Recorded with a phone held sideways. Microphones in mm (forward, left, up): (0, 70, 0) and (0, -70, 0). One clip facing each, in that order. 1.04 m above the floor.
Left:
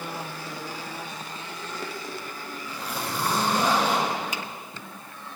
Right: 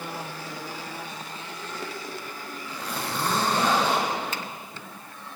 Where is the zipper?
10° left (ahead or behind), 7 m.